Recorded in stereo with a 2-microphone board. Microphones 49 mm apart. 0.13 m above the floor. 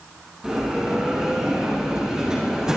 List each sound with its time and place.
0.4 s a bell: 15° right (ahead or behind), 8 m